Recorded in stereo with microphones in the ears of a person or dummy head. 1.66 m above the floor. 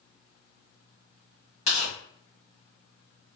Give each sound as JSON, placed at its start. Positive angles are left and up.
{"t": 1.7, "sound": "tearing paper", "side_deg": 40, "distance_m": 1.8}